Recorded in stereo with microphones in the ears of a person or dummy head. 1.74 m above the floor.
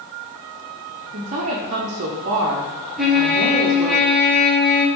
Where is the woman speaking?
30° right (ahead or behind), 1.0 m.